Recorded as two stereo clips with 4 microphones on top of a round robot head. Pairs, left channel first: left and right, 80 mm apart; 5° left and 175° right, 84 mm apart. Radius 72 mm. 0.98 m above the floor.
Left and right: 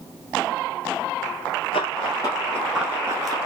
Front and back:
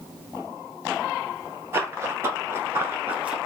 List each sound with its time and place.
1.7 s running footsteps: 125° left, 1.4 m; by 3.4 s 100° right, 1.1 m